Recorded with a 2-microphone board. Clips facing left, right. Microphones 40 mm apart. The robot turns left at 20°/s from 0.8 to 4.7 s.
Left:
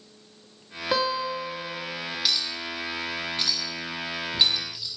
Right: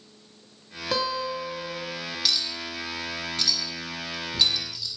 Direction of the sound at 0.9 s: 20° left (ahead or behind).